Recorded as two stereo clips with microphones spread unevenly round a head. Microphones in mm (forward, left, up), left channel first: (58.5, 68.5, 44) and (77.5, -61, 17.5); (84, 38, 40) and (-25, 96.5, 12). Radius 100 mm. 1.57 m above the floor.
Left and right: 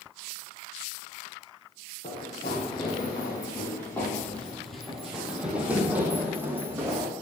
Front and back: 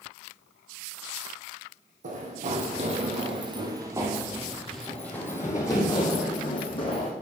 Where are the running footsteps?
140° left, 2.5 m; by 7.1 s 5° right, 3 m.